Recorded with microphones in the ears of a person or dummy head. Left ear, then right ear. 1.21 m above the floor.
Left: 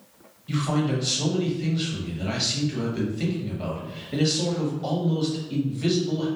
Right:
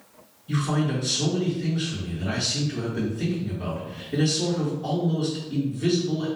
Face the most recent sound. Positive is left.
turn(degrees=35)  # may be behind; listen again after turning